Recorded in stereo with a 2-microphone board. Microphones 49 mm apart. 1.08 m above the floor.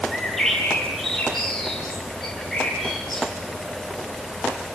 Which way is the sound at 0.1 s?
5° left (ahead or behind).